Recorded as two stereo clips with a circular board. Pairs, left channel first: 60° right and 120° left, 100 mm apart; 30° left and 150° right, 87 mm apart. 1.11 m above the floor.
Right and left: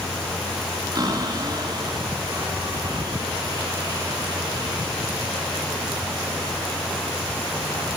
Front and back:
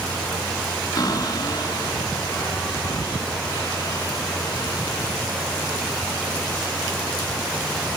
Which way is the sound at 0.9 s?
75° left.